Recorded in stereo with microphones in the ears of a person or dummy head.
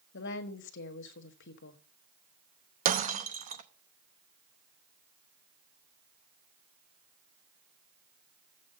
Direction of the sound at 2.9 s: 40° right (ahead or behind).